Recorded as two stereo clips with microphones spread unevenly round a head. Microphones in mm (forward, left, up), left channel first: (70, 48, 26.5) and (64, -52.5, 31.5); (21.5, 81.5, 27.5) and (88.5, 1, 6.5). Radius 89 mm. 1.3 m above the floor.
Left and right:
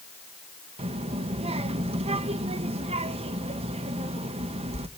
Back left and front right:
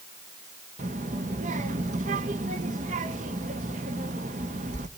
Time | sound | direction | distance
0.8 | a child speaking | 75° right | 1.4 m